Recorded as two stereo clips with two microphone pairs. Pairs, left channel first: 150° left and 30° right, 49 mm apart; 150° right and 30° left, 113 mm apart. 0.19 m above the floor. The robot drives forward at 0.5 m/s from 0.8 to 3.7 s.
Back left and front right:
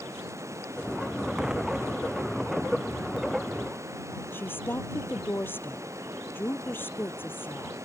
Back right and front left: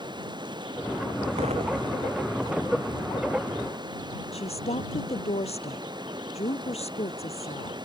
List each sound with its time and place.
0.0 s running water: 20° right
1.4 s an explosion: 45° left; by 2.8 s 50° left
4.3 s a woman speaking: 170° right